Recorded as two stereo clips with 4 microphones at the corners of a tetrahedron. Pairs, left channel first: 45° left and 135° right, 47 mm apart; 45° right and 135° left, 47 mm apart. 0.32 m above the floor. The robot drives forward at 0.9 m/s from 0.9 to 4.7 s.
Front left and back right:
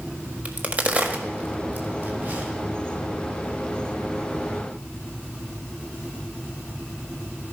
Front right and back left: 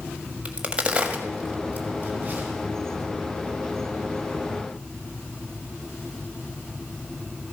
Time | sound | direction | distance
0.5 | a crack | 175° right | 1.1 m